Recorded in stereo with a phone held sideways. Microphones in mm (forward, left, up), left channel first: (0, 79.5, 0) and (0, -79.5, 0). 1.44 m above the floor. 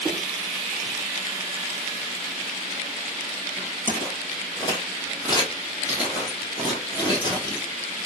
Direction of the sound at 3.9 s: 20° left (ahead or behind).